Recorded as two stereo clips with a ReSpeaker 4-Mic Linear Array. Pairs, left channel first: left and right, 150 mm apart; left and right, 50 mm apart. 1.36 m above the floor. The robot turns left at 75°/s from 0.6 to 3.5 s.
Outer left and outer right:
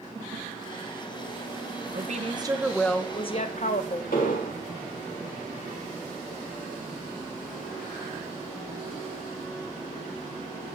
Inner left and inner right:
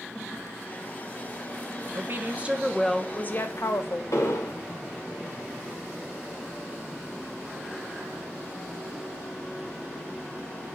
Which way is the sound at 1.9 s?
115° right.